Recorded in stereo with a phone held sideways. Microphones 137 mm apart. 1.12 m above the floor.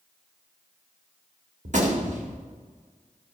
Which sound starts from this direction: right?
A gunshot, at 1.6 s.